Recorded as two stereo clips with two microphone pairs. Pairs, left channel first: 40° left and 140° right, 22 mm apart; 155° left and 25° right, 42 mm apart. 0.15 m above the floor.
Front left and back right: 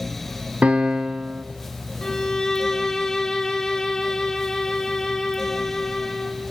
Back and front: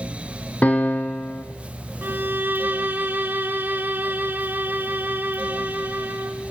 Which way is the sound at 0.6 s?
150° right.